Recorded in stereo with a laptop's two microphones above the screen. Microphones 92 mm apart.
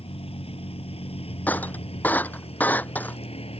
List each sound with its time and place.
0.0 s a vehicle: 75° left (ahead or behind); by 3.6 s 90° left
1.5 s breaking glass: 20° left (ahead or behind)